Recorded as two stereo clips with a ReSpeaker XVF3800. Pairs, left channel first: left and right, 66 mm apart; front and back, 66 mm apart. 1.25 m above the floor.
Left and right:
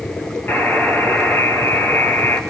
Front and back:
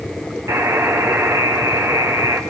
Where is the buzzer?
145° left, 4 m.